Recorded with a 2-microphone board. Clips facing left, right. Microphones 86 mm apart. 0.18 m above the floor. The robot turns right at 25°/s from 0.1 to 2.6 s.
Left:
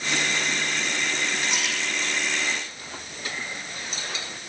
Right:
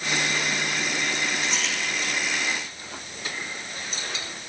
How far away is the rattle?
About 5 m.